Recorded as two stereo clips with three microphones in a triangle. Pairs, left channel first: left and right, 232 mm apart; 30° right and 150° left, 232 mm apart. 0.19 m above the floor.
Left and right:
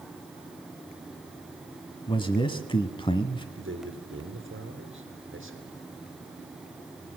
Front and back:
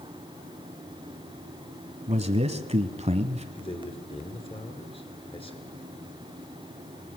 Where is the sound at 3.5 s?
95° right, 3 m.